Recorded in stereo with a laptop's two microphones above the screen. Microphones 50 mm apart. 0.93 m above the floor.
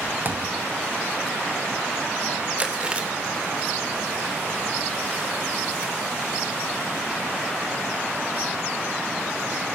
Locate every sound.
0.2 s a thud: 40° right (ahead or behind), 1.8 m
2.6 s chewing: 20° right (ahead or behind), 3.5 m